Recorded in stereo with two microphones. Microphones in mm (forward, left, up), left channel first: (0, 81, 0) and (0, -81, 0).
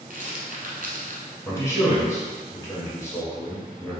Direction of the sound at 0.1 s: 60° right (ahead or behind).